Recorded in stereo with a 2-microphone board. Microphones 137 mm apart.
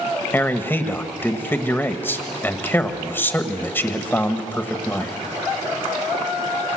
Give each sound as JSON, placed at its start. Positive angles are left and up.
{"t": 0.3, "sound": "a man speaking", "side_deg": 15, "distance_m": 1.4}